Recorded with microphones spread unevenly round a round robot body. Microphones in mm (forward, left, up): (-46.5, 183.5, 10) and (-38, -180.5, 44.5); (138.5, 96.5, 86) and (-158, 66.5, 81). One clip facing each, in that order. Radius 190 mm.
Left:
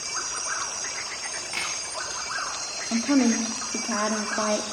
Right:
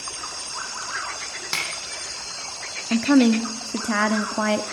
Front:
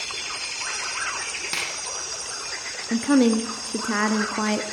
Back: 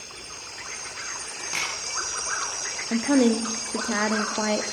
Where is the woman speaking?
60° right, 1.1 m.